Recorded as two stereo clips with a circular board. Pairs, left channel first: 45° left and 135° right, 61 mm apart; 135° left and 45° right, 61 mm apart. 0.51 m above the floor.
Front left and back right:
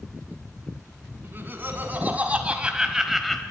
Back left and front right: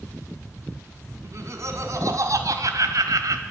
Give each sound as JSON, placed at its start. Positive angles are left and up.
{"t": 1.2, "sound": "laughter", "azimuth_deg": -80, "distance_m": 4.0}